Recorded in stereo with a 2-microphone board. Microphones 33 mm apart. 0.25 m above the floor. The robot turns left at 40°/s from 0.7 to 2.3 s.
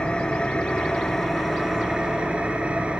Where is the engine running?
30° left, 0.8 m; by 3.0 s 35° right, 0.8 m.